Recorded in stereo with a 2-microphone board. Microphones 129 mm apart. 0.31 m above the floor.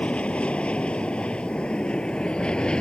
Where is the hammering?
No hammering in this recording.